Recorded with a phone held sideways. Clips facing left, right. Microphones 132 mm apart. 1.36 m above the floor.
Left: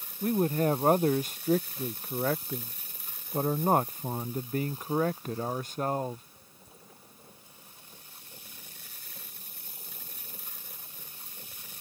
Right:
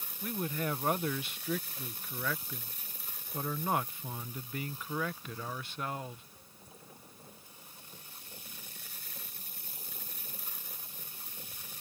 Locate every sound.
0.2 s a man speaking: 45° left (ahead or behind)